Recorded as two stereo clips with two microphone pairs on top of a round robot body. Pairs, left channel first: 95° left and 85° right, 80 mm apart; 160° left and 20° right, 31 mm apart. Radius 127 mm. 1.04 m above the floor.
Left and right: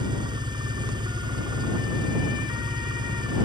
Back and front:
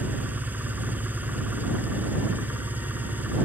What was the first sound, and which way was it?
An engine running, 50° right.